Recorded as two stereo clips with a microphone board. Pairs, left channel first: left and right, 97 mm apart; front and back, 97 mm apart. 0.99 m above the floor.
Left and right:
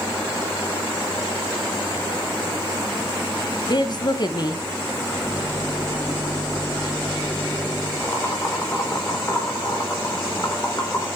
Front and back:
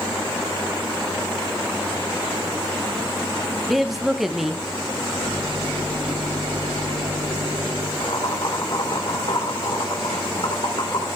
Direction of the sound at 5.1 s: 160° left.